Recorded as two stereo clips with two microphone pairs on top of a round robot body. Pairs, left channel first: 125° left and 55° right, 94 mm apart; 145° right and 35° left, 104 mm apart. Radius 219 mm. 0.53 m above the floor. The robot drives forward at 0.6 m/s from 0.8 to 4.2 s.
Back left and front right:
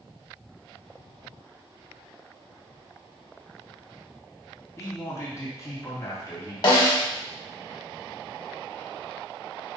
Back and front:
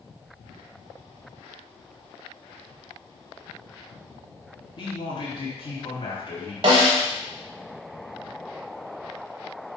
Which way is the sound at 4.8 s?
Straight behind.